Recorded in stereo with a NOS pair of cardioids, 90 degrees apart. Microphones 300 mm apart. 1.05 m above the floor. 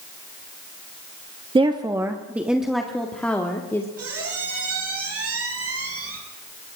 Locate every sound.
1.6 s a woman speaking: 15° right, 1.2 m; by 3.9 s 10° left, 2 m
4.0 s a squeak: 45° right, 5.5 m